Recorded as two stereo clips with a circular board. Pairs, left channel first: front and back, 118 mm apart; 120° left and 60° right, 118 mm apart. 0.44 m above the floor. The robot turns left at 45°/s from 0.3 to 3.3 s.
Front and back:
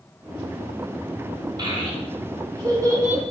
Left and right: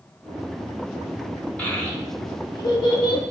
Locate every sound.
1.6 s a child speaking: 165° right, 0.9 m; by 3.2 s 120° left, 0.9 m